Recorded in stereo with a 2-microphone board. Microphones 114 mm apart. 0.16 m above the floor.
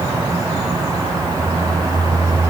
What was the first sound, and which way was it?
Only background noise.